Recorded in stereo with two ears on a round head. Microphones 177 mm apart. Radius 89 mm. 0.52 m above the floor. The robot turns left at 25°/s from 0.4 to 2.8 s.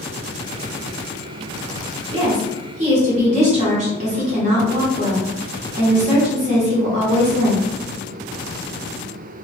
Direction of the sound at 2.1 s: 25° right (ahead or behind).